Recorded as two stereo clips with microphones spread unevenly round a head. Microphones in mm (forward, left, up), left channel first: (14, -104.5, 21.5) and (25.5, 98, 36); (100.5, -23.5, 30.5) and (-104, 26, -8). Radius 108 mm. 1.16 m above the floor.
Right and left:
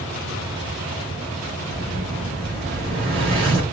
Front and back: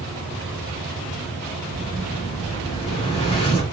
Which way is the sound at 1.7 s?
50° left.